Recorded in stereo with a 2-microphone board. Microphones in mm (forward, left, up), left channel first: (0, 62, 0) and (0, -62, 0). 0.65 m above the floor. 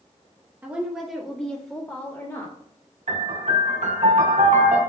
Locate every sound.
0.6 s a woman speaking: 15° right (ahead or behind), 1.0 m; by 2.5 s 30° left (ahead or behind), 1.5 m
3.1 s a piano: 65° right (ahead or behind), 1.2 m